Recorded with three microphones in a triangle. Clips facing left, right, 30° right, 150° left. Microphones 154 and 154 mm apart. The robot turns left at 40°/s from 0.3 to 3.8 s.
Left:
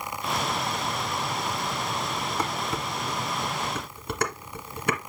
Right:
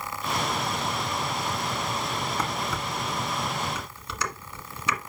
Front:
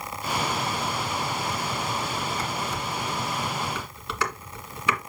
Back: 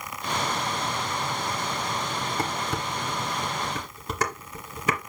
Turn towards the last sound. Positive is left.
turn(degrees=110)